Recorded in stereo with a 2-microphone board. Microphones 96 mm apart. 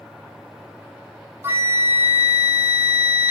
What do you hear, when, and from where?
1.4 s a flute: 25° right (ahead or behind), 0.9 m